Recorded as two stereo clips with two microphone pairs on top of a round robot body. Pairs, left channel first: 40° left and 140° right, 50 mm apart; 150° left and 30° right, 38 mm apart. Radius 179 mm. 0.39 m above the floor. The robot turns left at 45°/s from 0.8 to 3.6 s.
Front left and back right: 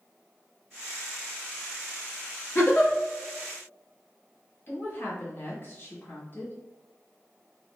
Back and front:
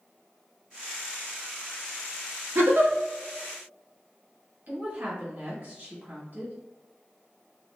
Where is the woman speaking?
Straight ahead, 1.9 m.